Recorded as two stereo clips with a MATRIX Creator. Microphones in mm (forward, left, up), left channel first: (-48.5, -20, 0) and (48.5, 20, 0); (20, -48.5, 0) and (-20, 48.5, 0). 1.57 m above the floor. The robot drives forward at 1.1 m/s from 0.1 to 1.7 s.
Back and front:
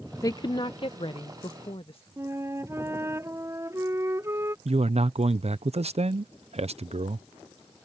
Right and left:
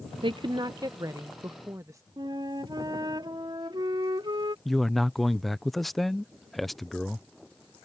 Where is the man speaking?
20° left.